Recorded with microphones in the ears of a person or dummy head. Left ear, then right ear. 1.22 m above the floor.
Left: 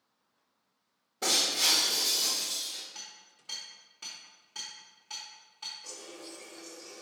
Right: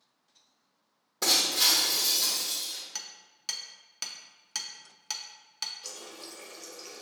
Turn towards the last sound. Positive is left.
turn(degrees=-45)  # may be behind; listen again after turning